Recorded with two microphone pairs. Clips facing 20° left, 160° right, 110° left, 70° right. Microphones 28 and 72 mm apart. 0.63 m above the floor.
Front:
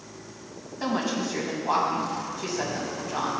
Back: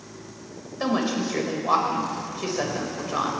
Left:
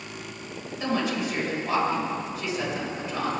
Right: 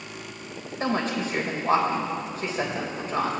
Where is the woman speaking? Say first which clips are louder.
Back 3 dB, right 1 dB; 115° right, 3 m.